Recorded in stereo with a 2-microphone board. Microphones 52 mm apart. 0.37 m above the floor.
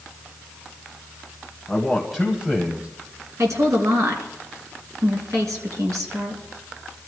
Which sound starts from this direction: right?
A woman speaking, at 3.4 s.